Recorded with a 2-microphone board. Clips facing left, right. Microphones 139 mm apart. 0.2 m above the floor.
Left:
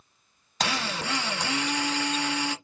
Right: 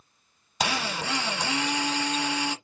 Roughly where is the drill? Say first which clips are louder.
Right 1 dB; centre.